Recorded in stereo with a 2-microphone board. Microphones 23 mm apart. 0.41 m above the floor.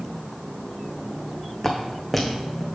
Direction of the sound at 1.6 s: 15° left (ahead or behind).